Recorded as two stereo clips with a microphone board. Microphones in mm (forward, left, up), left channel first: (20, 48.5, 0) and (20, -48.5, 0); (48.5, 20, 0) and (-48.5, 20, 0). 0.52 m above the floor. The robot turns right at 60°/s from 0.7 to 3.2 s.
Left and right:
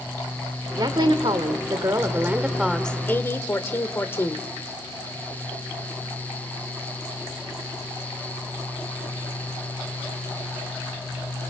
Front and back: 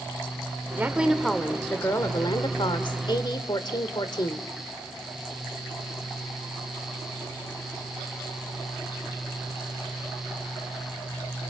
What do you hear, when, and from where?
0.8 s a woman speaking: 120° right, 1.5 m; by 4.4 s 30° left, 1.5 m